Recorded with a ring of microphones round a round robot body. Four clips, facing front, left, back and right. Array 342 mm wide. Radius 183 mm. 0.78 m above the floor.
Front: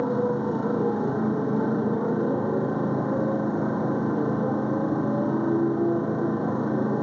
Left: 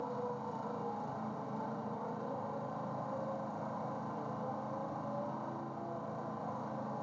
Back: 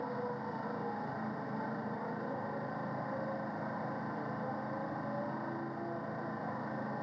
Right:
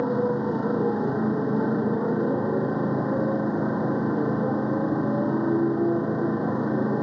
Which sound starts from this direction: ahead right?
A motorcycle, at 0.0 s.